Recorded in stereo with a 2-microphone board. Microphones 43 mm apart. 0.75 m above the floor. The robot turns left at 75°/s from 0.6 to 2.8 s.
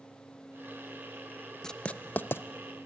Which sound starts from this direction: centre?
Writing, at 1.6 s.